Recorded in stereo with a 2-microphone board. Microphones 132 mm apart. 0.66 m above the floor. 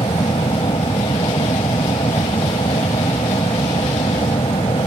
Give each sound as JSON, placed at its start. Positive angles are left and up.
{"t": 0.0, "sound": "an aircraft", "side_deg": 40}